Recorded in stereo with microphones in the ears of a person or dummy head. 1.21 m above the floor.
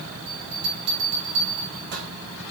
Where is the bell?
45° right (ahead or behind), 3.5 m.